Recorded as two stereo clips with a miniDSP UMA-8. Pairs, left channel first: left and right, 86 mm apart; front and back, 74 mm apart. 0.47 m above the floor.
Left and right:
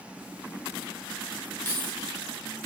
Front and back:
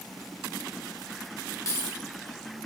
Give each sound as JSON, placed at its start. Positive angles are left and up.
{"t": 1.6, "sound": "keys jangling", "azimuth_deg": 30, "distance_m": 1.0}